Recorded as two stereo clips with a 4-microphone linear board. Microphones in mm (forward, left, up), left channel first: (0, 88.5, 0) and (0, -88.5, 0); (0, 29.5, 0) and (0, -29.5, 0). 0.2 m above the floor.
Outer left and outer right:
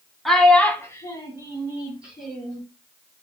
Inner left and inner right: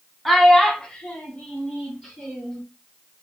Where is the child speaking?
Centre (ahead or behind), 0.8 m; by 2.6 s 20° left (ahead or behind), 1.6 m.